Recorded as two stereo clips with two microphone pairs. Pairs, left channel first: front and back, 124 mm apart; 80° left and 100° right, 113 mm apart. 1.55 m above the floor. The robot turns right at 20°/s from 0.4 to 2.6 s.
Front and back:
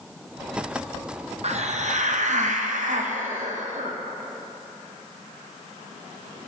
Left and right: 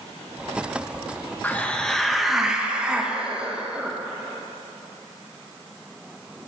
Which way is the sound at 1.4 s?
155° left.